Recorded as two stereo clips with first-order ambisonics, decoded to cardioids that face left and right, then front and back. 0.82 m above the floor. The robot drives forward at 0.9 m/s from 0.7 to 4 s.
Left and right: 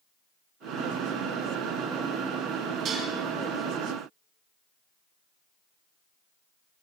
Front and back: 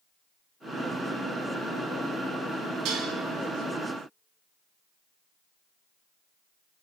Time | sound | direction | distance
2.9 | dishes clattering | 145° right | 4 m